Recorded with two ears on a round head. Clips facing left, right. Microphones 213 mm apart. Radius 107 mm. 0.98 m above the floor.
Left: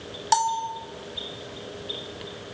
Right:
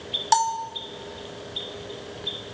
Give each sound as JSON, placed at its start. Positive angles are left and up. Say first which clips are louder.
{"t": 0.3, "sound": "a bell", "louder": "right 1 dB", "side_deg": 0, "distance_m": 0.8}